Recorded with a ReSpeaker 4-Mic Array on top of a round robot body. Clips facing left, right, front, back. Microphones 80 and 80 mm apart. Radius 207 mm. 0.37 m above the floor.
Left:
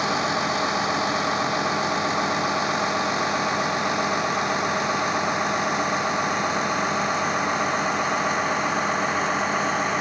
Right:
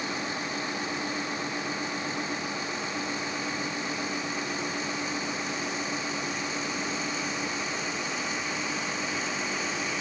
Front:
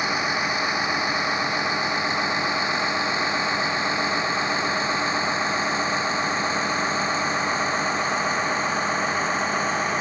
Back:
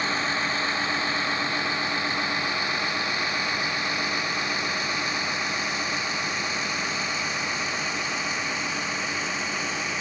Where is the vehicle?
75° left; by 10.0 s 50° left.